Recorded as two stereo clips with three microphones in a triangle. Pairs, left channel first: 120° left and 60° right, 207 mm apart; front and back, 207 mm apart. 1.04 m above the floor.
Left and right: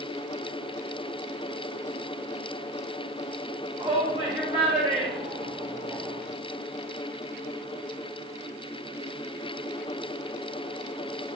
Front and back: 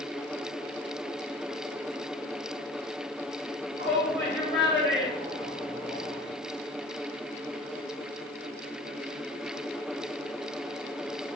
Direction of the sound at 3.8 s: 5° left.